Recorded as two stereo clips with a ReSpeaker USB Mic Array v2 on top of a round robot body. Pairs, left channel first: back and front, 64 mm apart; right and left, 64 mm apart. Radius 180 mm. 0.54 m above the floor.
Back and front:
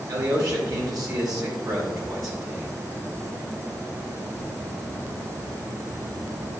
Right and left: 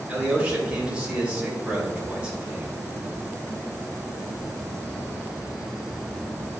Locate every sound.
0.1 s a man speaking: 20° left, 3 m